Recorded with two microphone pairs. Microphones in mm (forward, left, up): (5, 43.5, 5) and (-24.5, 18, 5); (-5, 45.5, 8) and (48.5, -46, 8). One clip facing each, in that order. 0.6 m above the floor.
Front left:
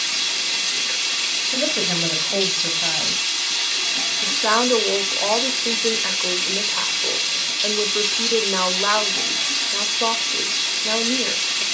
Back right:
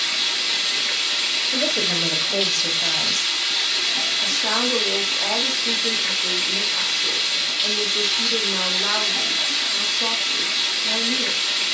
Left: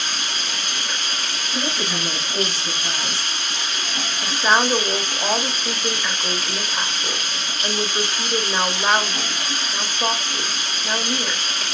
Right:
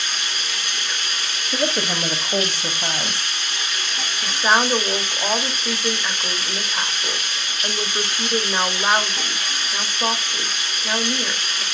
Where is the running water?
160° left, 4.5 m.